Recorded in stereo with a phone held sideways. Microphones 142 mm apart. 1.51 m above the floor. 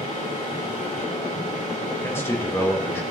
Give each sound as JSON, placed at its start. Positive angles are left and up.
{"t": 0.0, "sound": "a machine running", "side_deg": 70, "distance_m": 7.5}
{"t": 2.0, "sound": "a man speaking", "side_deg": 15, "distance_m": 2.5}